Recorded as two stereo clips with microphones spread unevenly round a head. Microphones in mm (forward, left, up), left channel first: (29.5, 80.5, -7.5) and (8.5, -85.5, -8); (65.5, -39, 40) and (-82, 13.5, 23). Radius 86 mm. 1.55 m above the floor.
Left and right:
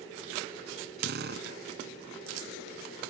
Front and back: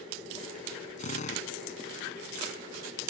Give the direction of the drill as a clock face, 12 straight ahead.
2 o'clock.